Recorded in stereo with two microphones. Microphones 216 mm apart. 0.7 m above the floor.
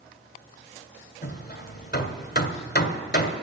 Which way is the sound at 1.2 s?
45° left (ahead or behind).